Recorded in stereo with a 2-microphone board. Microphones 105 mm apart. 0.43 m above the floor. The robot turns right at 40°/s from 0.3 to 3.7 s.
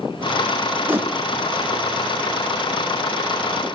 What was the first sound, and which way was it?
A whoosh, 20° right (ahead or behind).